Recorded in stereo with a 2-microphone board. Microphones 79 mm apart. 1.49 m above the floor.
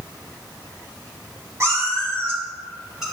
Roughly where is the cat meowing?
Right.